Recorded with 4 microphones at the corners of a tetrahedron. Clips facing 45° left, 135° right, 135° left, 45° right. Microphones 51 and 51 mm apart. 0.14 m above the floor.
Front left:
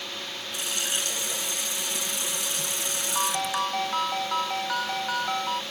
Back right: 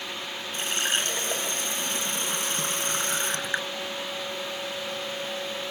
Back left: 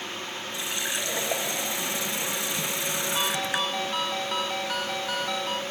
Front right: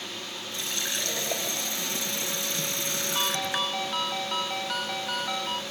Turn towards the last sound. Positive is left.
turn(degrees=45)